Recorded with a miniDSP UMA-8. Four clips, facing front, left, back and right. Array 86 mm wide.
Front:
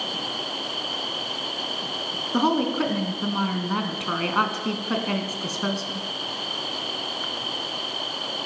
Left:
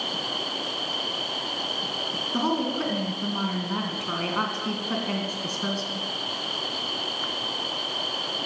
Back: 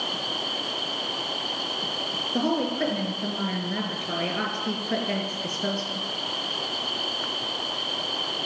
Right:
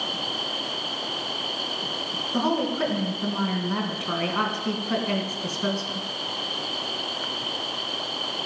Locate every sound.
2.3 s a woman speaking: straight ahead, 2.5 m